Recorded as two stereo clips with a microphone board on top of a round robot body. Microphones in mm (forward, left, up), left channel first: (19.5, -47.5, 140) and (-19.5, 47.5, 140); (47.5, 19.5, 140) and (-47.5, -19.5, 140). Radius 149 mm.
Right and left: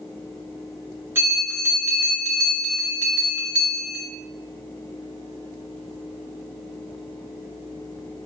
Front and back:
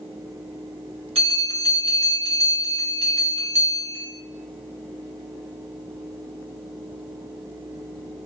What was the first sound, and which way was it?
A bell, straight behind.